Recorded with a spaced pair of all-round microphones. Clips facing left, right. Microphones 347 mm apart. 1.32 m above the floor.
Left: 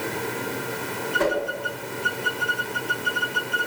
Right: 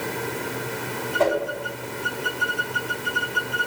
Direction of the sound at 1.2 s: 20° left (ahead or behind).